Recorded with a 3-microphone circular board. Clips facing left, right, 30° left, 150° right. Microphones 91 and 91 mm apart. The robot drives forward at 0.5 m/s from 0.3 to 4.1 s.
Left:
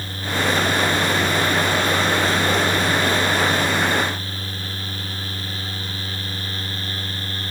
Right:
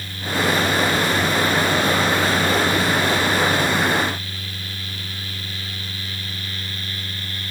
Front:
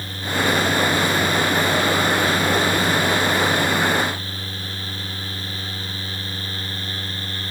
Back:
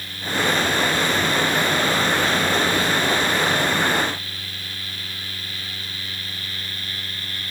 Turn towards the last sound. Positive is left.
No sound to turn to.